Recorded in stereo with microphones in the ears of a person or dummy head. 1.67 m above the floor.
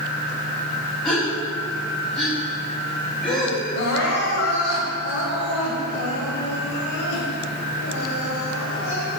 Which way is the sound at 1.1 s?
5° left (ahead or behind).